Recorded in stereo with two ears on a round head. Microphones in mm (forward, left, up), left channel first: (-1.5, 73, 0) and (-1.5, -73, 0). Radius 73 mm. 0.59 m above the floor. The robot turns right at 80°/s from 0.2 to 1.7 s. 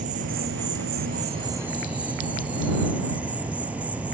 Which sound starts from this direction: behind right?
An insect, at 0.0 s.